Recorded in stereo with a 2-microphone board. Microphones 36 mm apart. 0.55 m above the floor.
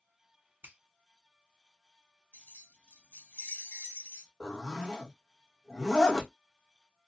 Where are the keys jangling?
65° left (ahead or behind), 1.4 m.